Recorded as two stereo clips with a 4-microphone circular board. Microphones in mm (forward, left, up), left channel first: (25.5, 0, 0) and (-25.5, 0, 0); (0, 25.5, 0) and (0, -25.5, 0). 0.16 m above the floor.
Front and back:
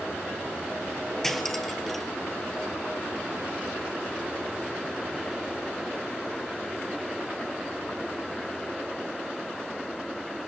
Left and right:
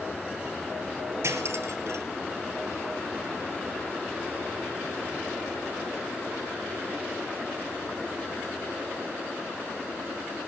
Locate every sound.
1.2 s cutlery clinking: 85° right, 1.8 m